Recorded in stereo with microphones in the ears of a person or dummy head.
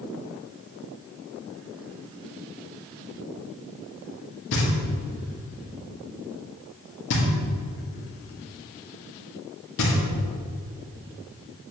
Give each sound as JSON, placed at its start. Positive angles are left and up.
{"t": 4.5, "sound": "knocking", "side_deg": 65, "distance_m": 1.6}